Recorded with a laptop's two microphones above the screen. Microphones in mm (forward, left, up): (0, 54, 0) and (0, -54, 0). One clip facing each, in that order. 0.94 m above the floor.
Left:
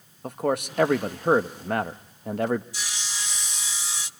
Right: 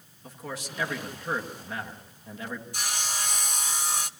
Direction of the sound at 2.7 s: 55° right (ahead or behind).